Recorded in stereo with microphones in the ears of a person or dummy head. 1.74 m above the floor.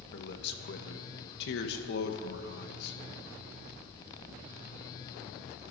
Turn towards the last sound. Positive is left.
turn(degrees=65)  # may be behind; listen again after turning